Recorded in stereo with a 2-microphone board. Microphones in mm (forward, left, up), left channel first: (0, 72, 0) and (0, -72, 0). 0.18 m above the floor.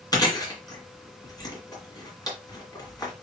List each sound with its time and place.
0.1 s chewing: 30° left (ahead or behind), 1.5 m